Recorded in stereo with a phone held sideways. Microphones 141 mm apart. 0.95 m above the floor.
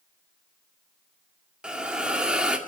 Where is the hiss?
5° right (ahead or behind), 2 m.